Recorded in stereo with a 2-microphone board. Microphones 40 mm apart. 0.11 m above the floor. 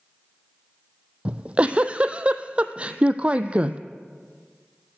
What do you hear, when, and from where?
1.2 s a giggle: 30° right (ahead or behind), 0.6 m